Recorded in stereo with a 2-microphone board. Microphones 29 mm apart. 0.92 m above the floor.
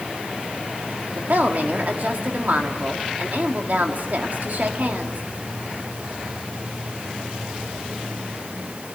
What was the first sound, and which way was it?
A woman speaking, 75° right (ahead or behind).